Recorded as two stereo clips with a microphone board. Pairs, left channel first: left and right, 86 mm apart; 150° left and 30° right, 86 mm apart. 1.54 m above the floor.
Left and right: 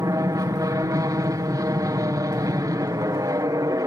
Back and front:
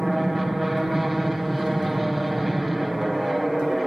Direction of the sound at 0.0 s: 120° right.